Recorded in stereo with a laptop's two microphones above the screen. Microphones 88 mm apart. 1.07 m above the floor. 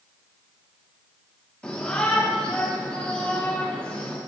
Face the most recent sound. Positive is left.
turn(degrees=15)  # may be behind; listen again after turning